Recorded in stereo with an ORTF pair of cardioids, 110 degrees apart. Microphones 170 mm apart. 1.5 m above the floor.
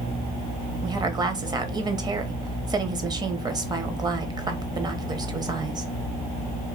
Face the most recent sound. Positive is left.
turn(degrees=-25)